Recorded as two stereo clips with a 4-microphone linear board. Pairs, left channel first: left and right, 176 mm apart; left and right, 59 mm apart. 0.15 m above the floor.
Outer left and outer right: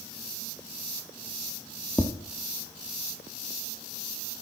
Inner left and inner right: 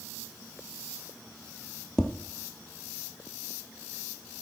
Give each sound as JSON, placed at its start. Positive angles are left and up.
{"t": 2.0, "sound": "tapping", "side_deg": 10, "distance_m": 1.0}